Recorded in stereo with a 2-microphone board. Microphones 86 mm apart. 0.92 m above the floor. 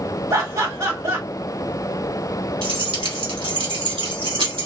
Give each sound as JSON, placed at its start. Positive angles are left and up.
{"t": 0.3, "sound": "laughter", "side_deg": -45, "distance_m": 1.6}
{"t": 2.6, "sound": "keys jangling", "side_deg": -85, "distance_m": 1.4}